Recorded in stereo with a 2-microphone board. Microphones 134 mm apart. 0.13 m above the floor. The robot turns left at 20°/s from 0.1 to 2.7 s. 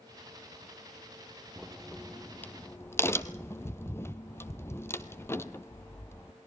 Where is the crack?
5° right (ahead or behind), 1.0 m; by 6.3 s 20° left (ahead or behind), 1.0 m.